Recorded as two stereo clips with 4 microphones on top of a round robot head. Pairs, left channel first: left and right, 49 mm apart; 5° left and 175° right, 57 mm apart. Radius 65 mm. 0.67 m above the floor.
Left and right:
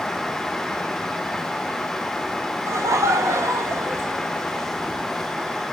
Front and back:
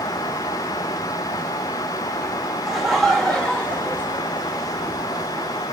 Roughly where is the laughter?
Right.